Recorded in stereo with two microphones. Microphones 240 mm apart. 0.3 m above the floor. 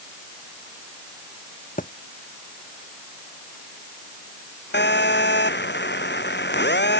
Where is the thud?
35° left (ahead or behind).